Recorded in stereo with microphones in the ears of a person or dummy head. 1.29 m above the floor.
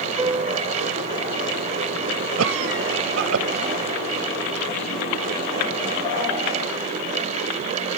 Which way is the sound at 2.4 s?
80° right.